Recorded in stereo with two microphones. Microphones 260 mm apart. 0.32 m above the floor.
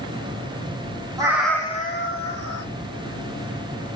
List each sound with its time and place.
1.2 s a cat meowing: 15° right (ahead or behind), 1.0 m; by 2.7 s 70° left (ahead or behind), 1.2 m